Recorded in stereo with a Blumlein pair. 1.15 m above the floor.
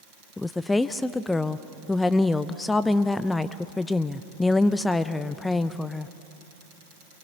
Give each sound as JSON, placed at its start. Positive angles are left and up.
{"t": 0.4, "sound": "a woman speaking", "azimuth_deg": 10, "distance_m": 0.6}